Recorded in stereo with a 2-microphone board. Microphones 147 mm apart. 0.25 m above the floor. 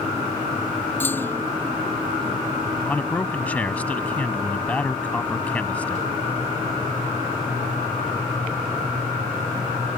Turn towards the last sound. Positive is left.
turn(degrees=10)  # may be behind; listen again after turning